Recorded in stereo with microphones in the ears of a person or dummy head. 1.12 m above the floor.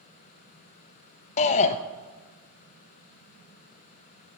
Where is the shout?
40° left (ahead or behind), 0.6 m.